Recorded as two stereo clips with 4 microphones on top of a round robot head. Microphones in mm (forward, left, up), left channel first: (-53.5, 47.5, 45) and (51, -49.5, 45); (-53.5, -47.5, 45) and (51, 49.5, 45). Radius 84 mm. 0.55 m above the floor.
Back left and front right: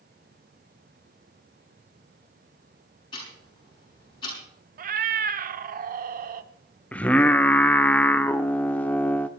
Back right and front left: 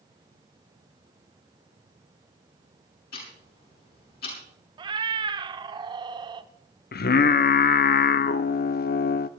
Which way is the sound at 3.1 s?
160° right.